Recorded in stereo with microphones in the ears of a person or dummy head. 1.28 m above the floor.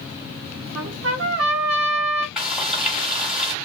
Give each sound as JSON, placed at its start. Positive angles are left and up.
{"t": 0.8, "sound": "a trumpet", "side_deg": -75, "distance_m": 0.6}
{"t": 2.4, "sound": "frying", "side_deg": 5, "distance_m": 1.5}